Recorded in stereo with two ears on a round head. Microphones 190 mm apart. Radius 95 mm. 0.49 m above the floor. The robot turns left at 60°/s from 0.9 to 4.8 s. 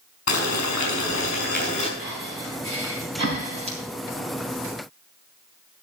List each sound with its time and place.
0.3 s boiling: 90° left, 5 m; by 1.9 s 30° left, 5 m
2.0 s breathing: 45° right (ahead or behind), 5 m; by 3.8 s 25° right (ahead or behind), 5 m